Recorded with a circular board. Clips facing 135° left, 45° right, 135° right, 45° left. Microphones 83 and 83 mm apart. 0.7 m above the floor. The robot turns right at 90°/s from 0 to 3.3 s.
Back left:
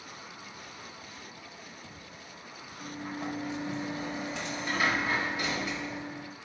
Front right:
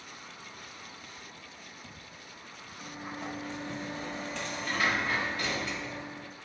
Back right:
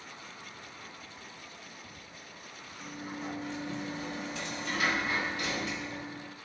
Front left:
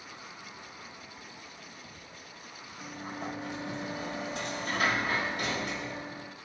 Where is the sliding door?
15° left, 1.8 m; by 6.3 s 60° left, 1.8 m.